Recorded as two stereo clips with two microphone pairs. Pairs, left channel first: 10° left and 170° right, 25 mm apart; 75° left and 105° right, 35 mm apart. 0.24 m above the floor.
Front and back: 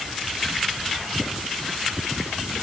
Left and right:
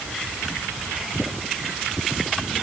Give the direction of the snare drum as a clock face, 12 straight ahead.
I don't hear a snare drum.